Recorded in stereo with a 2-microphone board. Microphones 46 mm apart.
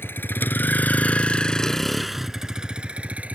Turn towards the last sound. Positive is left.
turn(degrees=-35)  # may be behind; listen again after turning